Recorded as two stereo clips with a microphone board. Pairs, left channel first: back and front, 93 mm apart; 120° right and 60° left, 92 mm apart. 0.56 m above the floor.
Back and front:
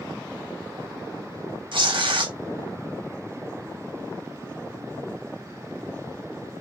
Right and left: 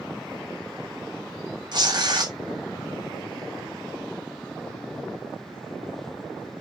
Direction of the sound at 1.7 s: 20° left.